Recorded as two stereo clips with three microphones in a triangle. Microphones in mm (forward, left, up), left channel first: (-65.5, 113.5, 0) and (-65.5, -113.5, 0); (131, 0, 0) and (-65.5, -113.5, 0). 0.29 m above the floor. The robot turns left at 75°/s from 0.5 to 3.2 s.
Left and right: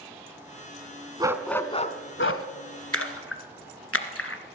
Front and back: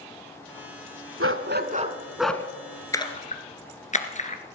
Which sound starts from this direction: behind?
A dog barking, at 1.2 s.